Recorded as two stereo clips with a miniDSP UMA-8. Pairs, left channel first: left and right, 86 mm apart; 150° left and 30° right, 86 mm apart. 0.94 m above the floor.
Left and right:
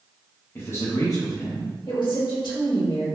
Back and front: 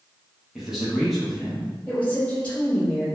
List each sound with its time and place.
0.6 s a man speaking: 50° left, 1.0 m; by 1.7 s 70° left, 1.4 m
1.9 s a woman speaking: 80° left, 1.8 m